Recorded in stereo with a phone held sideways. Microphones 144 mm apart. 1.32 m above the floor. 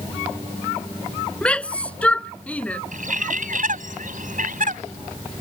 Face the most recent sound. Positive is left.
turn(degrees=-65)  # may be behind; listen again after turning